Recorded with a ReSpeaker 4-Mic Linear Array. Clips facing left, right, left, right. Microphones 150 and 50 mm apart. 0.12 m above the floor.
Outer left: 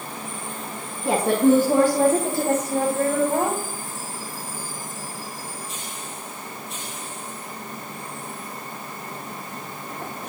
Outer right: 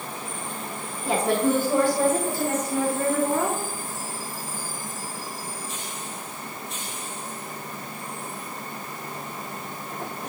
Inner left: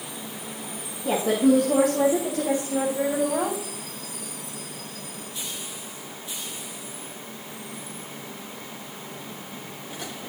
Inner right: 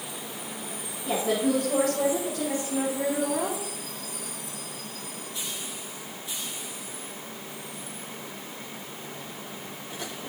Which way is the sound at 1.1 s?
75° left (ahead or behind).